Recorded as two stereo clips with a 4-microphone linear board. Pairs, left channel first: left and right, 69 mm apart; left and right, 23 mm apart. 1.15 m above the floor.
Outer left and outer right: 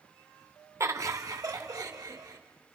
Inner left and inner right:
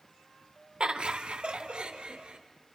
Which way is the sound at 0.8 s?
45° right (ahead or behind).